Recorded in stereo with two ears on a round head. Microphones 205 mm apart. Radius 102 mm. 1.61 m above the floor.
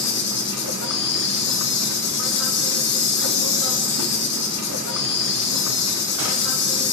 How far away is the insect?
About 4.5 m.